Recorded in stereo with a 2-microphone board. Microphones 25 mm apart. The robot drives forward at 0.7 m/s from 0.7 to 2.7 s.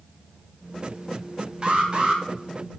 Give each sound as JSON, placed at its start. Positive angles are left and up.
{"t": 1.6, "sound": "an alarm", "side_deg": -35, "distance_m": 1.4}